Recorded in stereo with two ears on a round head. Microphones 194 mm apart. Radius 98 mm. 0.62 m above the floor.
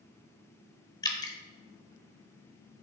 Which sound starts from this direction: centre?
Dripping, at 1.0 s.